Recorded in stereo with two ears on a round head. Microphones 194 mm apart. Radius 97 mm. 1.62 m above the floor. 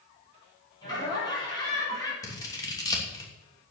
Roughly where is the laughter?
Centre.